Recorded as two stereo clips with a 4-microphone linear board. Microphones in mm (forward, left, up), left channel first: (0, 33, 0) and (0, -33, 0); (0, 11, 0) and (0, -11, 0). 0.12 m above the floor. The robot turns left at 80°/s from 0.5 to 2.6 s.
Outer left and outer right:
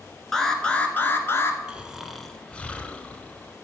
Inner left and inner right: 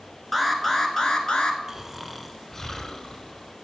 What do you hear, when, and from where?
0.3 s an alarm: 170° left, 1.2 m; by 1.6 s 85° left, 1.2 m
1.7 s snoring: 15° right (ahead or behind), 1.0 m; by 3.5 s 15° left (ahead or behind), 1.0 m